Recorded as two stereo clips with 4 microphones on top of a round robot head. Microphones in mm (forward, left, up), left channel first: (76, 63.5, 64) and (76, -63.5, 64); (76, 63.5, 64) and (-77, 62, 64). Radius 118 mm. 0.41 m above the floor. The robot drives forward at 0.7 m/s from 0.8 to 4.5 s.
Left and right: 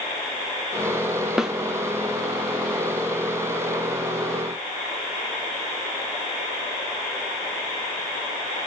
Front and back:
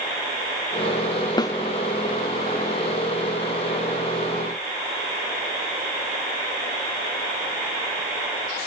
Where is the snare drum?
10° right, 0.8 m.